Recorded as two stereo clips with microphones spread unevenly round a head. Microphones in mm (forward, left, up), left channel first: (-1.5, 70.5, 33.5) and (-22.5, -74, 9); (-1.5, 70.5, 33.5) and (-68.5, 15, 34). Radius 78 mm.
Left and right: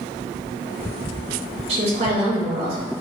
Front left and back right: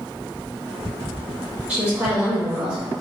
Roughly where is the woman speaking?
Ahead right.